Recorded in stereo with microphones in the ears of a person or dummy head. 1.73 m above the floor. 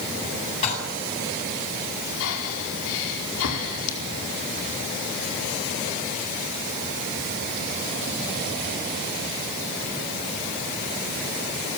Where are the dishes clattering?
35° left (ahead or behind), 7.5 m.